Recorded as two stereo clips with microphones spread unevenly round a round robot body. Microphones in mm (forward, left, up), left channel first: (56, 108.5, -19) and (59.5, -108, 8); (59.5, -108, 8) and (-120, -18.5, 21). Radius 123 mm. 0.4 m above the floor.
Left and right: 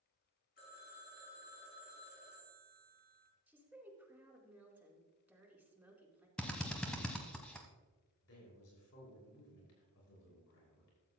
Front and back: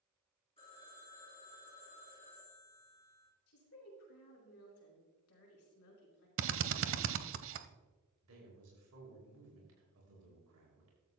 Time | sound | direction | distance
0.6 | a phone ringing | 45° left | 4 m
3.5 | a woman speaking | 5° right | 4 m
6.4 | a drill | 175° left | 0.8 m
8.2 | a man speaking | 130° left | 5.5 m